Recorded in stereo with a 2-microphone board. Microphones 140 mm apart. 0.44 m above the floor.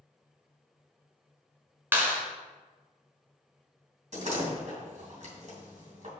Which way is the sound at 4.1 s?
55° right (ahead or behind).